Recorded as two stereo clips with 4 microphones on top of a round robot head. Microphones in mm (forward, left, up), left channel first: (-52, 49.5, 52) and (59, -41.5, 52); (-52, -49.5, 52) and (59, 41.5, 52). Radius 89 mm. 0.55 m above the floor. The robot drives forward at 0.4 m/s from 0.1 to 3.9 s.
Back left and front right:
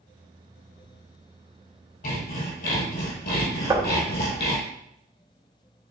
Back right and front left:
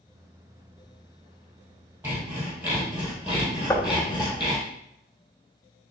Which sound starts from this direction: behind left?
Sawing, at 2.0 s.